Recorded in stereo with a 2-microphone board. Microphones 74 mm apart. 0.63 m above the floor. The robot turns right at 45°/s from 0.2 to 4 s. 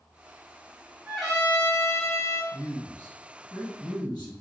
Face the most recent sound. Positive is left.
turn(degrees=75)